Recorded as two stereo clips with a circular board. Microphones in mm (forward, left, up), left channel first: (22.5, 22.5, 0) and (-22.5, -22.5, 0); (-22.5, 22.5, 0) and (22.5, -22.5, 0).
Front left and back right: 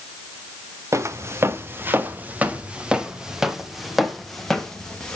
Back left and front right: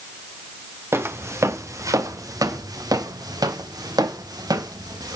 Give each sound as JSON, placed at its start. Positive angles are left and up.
{"t": 0.9, "sound": "footsteps", "azimuth_deg": -95, "distance_m": 3.0}